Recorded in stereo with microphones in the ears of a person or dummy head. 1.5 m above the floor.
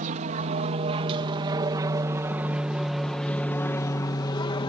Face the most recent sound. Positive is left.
turn(degrees=30)  # may be behind; listen again after turning